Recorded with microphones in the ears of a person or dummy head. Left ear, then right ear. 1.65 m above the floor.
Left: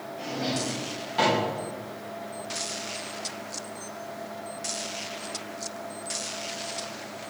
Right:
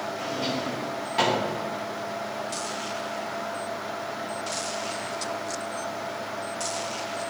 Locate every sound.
0.2 s a drawer: 15° right (ahead or behind), 1.5 m